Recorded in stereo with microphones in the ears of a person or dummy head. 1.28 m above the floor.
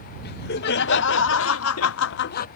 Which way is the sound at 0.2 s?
55° left (ahead or behind).